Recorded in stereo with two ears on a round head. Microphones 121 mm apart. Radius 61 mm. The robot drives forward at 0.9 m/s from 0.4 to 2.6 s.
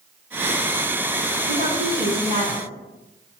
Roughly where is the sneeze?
No sneeze in this recording.